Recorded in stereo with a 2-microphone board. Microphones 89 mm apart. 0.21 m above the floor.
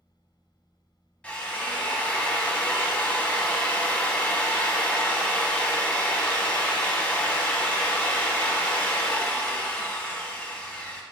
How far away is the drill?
About 0.8 m.